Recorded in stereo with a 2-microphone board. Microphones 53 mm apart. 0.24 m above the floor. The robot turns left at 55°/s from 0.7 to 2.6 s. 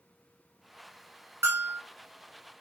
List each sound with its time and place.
1.4 s a bell: 65° right (ahead or behind), 1.7 m; by 1.8 s 45° right (ahead or behind), 1.7 m